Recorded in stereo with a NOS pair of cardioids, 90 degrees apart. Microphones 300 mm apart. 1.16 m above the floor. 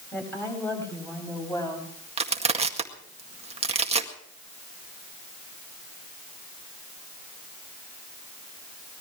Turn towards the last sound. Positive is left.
turn(degrees=-20)